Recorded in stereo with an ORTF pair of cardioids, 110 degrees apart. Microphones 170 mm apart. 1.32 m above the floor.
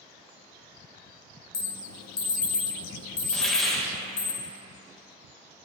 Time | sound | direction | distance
1.5 | an alarm | 60° left | 1.6 m
3.3 | a hiss | straight ahead | 1.6 m